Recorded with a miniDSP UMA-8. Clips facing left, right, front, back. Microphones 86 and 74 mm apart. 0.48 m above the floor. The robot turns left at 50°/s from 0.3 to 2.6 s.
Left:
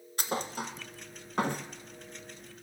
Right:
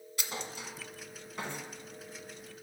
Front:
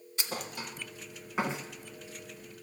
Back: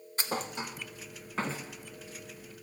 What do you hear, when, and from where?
0.2 s a thud: 130° left, 0.7 m; by 1.7 s 65° left, 0.7 m